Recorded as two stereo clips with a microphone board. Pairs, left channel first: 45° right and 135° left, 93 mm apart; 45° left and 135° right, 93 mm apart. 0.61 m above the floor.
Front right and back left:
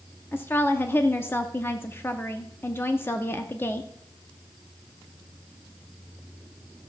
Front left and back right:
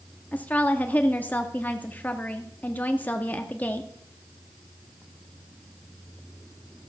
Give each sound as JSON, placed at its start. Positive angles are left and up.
{"t": 0.3, "sound": "a woman speaking", "azimuth_deg": -5, "distance_m": 0.8}